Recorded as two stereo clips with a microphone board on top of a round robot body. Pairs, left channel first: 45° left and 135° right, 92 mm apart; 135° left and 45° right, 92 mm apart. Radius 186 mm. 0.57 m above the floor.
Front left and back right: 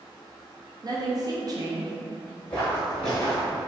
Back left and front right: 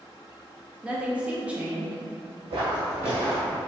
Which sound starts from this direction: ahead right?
Footsteps, at 2.5 s.